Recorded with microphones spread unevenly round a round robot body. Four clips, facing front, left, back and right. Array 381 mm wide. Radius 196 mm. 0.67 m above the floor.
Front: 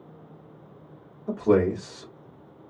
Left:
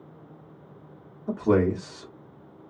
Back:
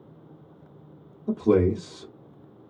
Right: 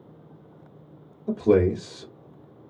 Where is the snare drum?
No snare drum in this recording.